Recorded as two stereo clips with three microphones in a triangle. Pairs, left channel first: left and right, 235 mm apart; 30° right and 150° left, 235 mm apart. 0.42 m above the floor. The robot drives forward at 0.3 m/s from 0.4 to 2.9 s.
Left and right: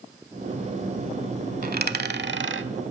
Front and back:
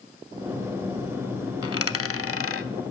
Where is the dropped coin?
35° right, 0.8 m; by 2.7 s 55° right, 0.6 m.